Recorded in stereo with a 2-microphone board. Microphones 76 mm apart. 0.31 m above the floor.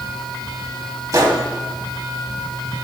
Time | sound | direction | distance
1.1 | a gunshot | 45° right (ahead or behind) | 1.4 m